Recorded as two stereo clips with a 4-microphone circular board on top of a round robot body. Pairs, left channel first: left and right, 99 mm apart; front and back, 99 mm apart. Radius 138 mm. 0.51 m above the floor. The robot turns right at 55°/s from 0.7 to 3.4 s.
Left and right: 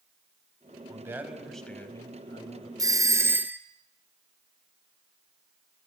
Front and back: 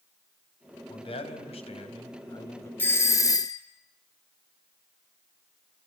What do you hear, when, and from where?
0.9 s a man speaking: 30° right, 4 m; by 2.7 s 65° left, 4 m
2.8 s a doorbell: 60° right, 1.9 m; by 3.6 s 25° right, 1.9 m